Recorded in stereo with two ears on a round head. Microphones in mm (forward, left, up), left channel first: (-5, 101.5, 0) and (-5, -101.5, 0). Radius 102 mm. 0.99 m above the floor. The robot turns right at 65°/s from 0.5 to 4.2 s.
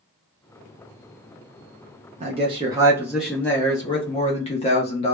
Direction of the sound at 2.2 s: 70° right.